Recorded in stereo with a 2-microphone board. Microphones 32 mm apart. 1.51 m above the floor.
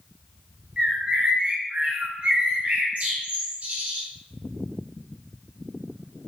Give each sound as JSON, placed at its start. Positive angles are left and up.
{"t": 0.8, "sound": "a bird", "side_deg": -40, "distance_m": 0.8}